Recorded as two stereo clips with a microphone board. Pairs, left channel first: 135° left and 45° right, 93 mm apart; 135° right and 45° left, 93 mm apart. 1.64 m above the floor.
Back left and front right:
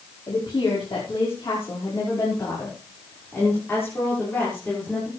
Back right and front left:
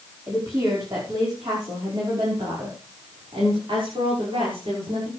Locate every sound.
0.3 s a woman speaking: 100° left, 5.5 m; by 5.1 s 60° left, 6.5 m